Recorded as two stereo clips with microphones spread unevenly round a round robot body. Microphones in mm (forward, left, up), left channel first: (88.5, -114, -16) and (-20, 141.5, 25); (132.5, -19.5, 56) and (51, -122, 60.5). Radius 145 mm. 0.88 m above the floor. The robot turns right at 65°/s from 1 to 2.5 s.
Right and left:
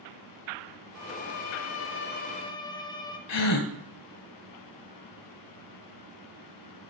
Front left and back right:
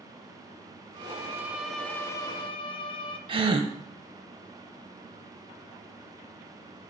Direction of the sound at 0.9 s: 85° right.